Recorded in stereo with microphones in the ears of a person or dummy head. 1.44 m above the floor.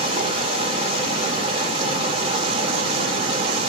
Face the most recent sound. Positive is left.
turn(degrees=-25)  # may be behind; listen again after turning